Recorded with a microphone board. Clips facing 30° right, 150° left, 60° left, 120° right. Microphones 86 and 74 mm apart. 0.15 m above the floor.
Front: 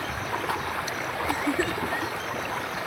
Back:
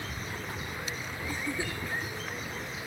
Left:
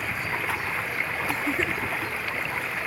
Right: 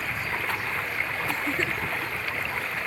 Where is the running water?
30° right.